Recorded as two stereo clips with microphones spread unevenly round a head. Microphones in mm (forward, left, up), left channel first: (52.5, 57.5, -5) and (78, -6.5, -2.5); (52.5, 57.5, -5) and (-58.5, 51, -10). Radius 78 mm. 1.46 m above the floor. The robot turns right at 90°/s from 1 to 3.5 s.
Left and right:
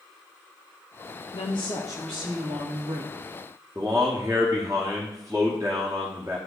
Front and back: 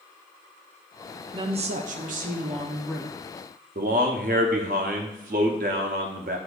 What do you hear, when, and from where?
1.3 s a woman speaking: 130° left, 0.5 m; by 3.1 s 70° right, 0.5 m
3.8 s a man speaking: 140° right, 0.6 m